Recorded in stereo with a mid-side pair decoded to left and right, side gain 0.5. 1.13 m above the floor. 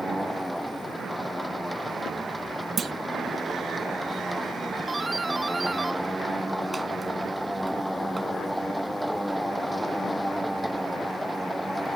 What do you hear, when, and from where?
0.0 s a machine running: 5° right
2.8 s a clunk: 40° right
4.9 s a doorbell: 20° right